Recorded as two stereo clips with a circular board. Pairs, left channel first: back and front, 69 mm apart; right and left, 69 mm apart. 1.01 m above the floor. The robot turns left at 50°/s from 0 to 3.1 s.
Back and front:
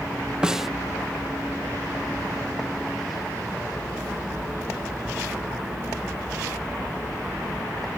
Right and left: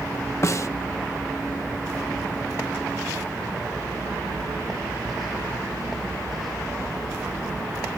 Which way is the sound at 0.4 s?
70° right.